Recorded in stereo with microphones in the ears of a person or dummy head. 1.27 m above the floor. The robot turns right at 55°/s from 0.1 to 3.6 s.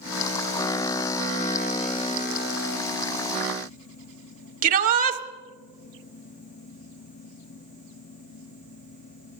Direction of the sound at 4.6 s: 55° right (ahead or behind).